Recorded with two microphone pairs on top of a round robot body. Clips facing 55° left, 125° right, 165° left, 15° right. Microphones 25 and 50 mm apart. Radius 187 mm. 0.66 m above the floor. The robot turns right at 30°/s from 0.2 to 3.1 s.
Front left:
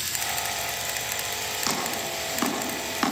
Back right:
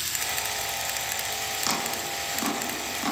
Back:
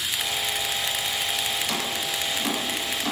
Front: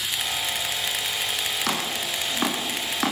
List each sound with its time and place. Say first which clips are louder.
1.7 s chopping: front left 1 dB, front 1 dB; 30° right, 7 m; by 3.1 s 15° left, 7 m